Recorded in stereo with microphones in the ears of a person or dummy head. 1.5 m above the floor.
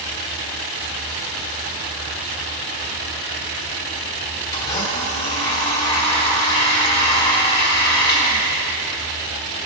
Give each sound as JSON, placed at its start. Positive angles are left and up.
{"t": 4.5, "sound": "a blender", "side_deg": 25, "distance_m": 2.5}